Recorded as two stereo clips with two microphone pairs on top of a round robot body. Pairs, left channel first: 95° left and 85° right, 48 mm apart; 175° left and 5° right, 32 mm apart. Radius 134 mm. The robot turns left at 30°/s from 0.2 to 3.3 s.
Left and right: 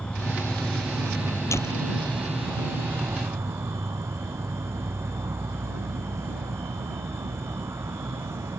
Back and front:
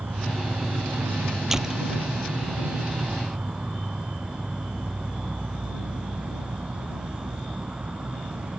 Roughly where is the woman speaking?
No woman speaking in this recording.